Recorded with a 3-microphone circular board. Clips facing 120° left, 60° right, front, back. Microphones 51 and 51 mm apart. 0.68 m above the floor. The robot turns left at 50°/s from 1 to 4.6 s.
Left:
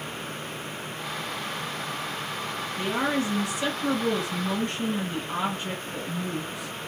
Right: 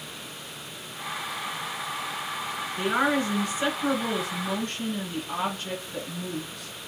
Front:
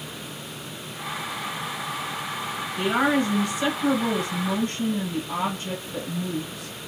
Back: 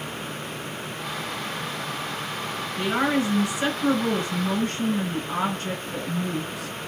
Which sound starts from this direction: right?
A woman speaking, at 2.8 s.